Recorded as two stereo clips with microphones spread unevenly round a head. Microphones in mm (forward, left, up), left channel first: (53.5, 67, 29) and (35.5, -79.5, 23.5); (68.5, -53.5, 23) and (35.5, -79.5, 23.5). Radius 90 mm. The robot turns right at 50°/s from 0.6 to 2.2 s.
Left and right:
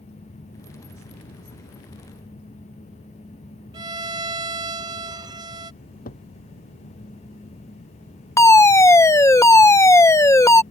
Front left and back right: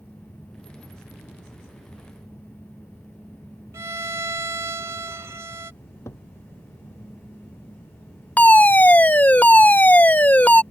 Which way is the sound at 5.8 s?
55° left.